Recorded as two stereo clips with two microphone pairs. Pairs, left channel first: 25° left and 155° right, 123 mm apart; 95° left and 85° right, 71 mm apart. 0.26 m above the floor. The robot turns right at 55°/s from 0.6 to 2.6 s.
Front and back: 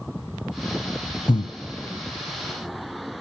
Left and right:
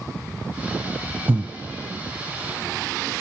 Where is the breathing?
30° right, 0.6 m; by 1.5 s 15° right, 0.6 m.